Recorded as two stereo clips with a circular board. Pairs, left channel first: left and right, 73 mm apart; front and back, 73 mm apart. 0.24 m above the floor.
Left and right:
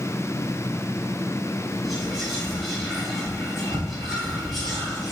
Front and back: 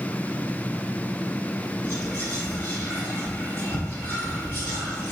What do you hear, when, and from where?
1.8 s whispering: 5° left, 1.1 m